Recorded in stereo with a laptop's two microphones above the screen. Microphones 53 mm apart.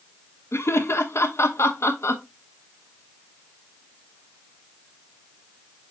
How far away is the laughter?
About 1.0 m.